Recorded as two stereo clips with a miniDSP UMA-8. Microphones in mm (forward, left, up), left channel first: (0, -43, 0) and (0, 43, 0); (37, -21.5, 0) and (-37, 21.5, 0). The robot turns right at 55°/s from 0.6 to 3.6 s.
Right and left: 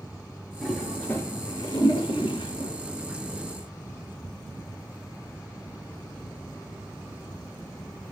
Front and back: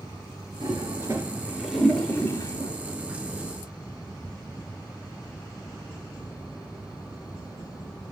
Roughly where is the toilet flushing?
Behind.